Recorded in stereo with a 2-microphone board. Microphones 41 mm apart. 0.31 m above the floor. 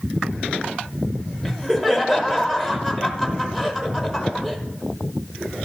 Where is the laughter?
5° right (ahead or behind), 1.0 m.